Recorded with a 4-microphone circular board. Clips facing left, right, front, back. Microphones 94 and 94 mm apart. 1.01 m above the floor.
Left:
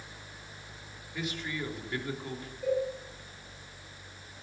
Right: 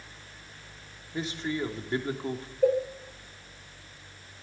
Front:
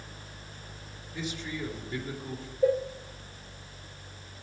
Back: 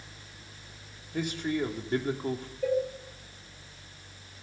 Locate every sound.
1.1 s a man speaking: 150° right, 3 m
2.6 s a cowbell: 60° right, 4.5 m